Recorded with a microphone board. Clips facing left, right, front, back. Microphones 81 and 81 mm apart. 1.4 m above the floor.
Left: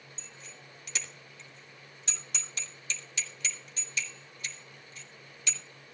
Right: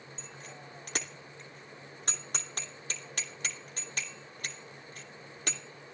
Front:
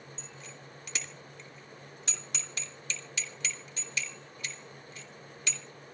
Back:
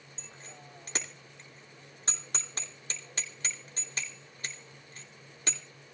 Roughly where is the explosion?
I don't hear an explosion.